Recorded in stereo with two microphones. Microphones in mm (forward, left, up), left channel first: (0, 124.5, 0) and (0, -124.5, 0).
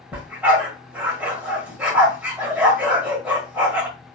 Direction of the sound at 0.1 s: 5° right (ahead or behind).